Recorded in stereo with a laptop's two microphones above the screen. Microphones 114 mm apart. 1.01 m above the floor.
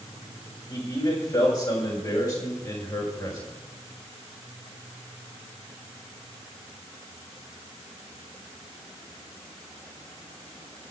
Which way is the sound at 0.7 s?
40° left (ahead or behind).